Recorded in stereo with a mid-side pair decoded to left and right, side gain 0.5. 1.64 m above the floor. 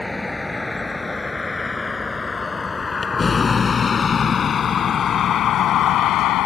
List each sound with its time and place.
0.0 s a vehicle: 15° left; by 6.5 s 75° left